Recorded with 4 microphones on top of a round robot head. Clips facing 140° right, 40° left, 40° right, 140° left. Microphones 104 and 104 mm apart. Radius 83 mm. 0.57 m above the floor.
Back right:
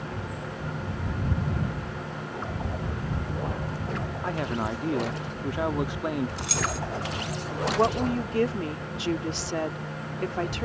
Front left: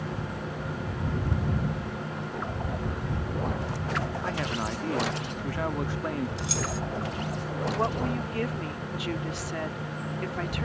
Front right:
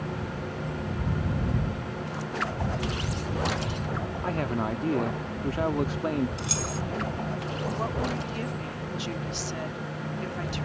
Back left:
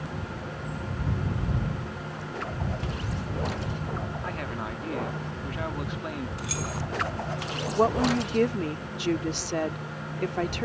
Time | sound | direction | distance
4.2 | a man speaking | 75° right | ?
6.4 | keys jangling | 105° right | ?
7.8 | a woman speaking | 165° left | ?